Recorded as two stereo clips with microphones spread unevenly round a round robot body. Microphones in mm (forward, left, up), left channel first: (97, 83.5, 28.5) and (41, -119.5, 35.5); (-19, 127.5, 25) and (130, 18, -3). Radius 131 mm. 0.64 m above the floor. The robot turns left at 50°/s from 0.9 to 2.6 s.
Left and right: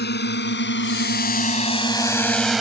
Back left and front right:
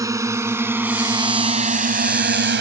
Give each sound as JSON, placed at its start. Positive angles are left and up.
{"t": 0.0, "sound": "a drone", "azimuth_deg": 35}